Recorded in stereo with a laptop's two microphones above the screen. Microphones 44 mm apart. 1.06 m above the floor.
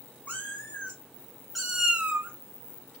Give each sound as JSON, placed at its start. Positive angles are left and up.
{"t": 0.3, "sound": "a cat meowing", "side_deg": 40, "distance_m": 0.9}